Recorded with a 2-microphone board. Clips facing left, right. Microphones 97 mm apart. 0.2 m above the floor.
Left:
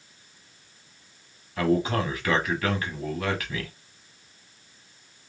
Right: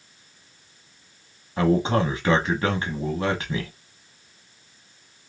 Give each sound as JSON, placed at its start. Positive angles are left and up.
{"t": 1.6, "sound": "a man speaking", "side_deg": -30, "distance_m": 1.1}